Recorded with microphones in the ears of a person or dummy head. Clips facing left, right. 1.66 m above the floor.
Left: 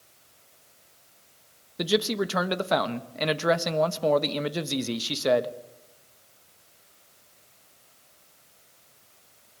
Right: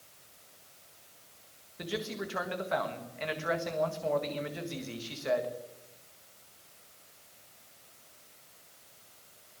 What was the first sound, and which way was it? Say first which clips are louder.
A man speaking: left 11 dB; 70° left (ahead or behind).